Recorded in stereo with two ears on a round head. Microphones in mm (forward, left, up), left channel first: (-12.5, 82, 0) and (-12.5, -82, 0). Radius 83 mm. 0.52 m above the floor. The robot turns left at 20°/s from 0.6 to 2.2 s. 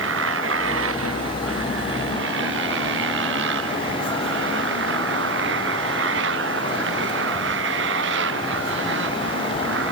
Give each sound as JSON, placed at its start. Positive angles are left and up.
{"t": 0.0, "sound": "a motorcycle", "azimuth_deg": -70}